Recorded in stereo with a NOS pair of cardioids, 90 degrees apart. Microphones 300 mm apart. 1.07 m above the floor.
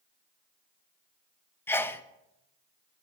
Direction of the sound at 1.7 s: 5° left.